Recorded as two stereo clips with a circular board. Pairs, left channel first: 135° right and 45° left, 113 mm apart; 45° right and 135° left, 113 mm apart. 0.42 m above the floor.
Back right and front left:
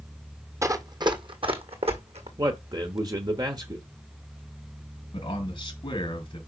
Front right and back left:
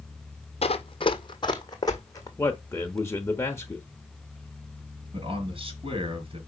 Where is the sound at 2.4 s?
10° left, 0.9 m.